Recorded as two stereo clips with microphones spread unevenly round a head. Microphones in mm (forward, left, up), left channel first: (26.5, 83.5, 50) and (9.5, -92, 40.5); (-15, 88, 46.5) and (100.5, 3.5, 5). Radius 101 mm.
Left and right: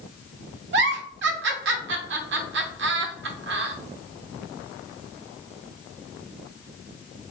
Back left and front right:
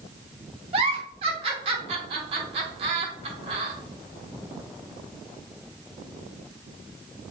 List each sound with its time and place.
0.7 s a giggle: 85° right, 0.5 m